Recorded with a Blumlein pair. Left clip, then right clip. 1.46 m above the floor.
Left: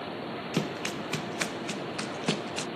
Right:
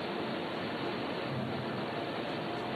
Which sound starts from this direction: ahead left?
Running footsteps, at 0.5 s.